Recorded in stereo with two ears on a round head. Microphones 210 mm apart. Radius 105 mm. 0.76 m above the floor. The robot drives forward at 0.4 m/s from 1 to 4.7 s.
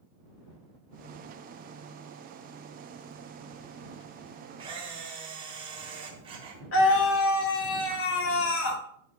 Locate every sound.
4.6 s a camera shutter: 25° right (ahead or behind), 3.5 m
6.7 s a scream: 65° left (ahead or behind), 2.5 m